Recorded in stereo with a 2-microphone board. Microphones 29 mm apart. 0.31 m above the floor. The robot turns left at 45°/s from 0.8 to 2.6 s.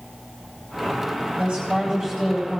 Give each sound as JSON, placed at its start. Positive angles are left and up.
{"t": 1.4, "sound": "a woman speaking", "azimuth_deg": -125, "distance_m": 9.0}